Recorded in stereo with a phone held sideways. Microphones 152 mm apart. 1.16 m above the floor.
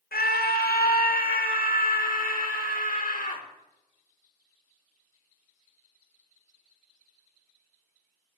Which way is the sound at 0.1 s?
80° left.